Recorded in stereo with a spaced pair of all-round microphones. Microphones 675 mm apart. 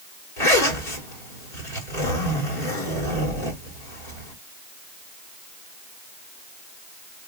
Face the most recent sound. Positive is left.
turn(degrees=70)  # may be behind; listen again after turning